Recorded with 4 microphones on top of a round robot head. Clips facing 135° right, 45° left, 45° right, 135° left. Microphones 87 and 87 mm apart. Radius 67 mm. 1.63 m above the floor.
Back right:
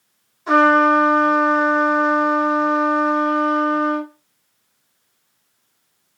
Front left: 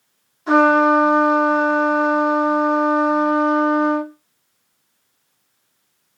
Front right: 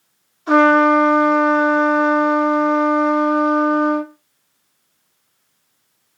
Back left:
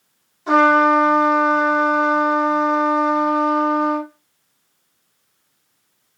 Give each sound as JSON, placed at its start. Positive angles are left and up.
{"t": 0.5, "sound": "a trumpet", "azimuth_deg": 135, "distance_m": 2.0}